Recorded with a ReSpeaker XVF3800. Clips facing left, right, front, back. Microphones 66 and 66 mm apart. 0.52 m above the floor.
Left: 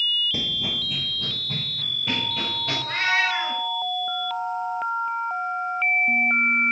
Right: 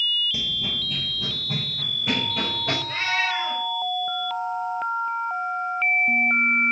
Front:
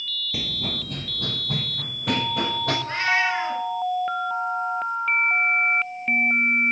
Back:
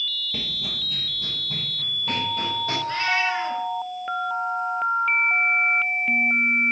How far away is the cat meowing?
About 4 m.